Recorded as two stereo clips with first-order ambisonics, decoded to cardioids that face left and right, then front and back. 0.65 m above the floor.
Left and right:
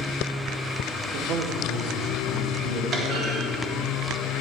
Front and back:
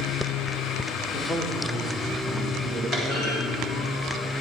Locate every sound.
1.1 s a man speaking: 60° right, 1.1 m
2.9 s a clunk: 60° right, 1.8 m